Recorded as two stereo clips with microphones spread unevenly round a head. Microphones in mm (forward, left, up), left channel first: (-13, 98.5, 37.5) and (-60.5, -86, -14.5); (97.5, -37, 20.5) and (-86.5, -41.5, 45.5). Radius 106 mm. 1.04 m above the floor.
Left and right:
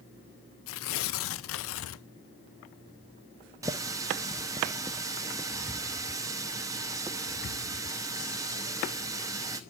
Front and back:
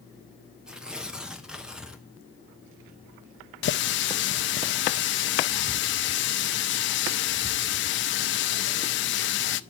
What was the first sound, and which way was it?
Tearing paper, 95° left.